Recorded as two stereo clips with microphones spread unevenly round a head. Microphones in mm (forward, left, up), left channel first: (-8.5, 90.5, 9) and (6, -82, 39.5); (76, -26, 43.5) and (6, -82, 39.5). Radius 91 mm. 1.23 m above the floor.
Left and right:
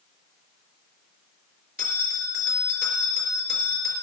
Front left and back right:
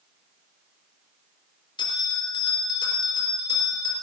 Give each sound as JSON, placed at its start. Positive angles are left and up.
{"t": 1.8, "sound": "a bell", "azimuth_deg": 5, "distance_m": 3.5}